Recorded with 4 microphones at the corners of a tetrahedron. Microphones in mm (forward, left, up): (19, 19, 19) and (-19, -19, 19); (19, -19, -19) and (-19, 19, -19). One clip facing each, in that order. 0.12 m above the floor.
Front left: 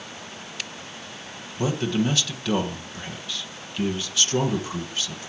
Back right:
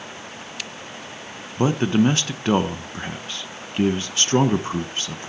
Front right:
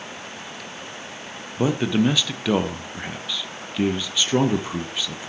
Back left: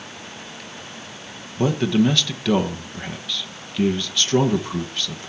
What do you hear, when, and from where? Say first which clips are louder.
1.6 s a man speaking: back right 6 dB, back left 2 dB; 120° right, 1.3 m